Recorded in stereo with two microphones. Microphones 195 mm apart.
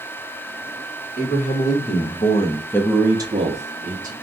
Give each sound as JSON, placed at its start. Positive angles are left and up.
{"t": 1.2, "sound": "a man speaking", "side_deg": 55, "distance_m": 1.3}